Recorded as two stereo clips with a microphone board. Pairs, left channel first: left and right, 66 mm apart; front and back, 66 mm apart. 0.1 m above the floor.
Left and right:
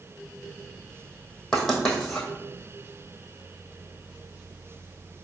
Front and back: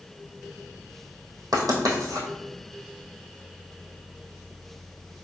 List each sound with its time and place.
1.5 s writing: 170° left, 1.8 m